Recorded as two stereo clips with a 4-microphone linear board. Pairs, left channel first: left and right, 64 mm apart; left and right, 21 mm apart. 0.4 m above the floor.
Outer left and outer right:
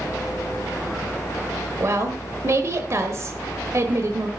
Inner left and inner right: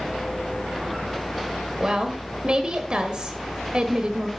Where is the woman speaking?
50° right (ahead or behind), 1.4 m.